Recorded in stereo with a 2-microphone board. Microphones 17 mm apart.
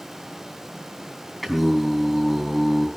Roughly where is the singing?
Centre.